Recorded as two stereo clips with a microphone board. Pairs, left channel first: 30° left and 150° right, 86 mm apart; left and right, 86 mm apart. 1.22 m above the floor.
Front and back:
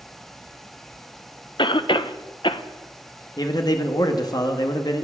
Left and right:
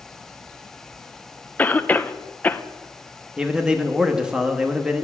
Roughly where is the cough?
Ahead.